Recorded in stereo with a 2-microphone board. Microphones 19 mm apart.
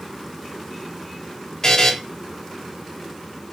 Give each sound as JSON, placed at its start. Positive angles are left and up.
{"t": 1.6, "sound": "a buzzer", "side_deg": 35, "distance_m": 3.5}